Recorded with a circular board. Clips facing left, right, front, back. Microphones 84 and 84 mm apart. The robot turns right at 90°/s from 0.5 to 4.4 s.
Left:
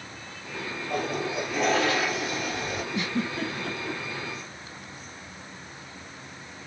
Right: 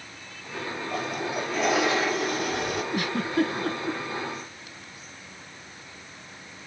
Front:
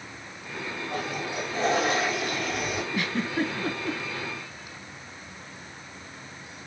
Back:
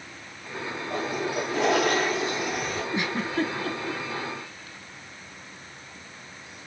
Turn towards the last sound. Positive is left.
turn(degrees=15)